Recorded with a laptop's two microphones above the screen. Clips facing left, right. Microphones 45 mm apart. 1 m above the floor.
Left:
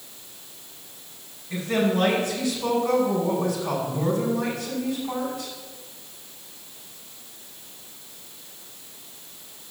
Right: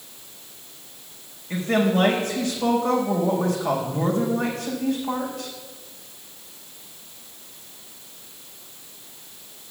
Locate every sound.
1.5 s a woman speaking: 65° right (ahead or behind), 4 m